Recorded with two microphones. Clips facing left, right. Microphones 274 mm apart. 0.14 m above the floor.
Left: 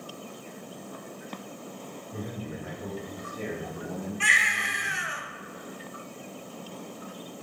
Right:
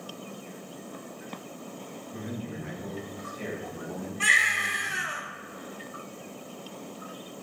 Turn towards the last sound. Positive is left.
turn(degrees=-50)  # may be behind; listen again after turning